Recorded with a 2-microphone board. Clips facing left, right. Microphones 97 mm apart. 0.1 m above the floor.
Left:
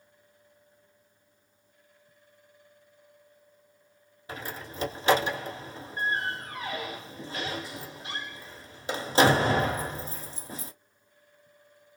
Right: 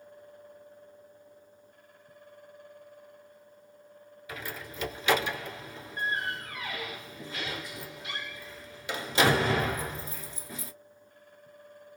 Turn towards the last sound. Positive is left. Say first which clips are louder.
# left 2 dB
turn(degrees=35)  # may be behind; listen again after turning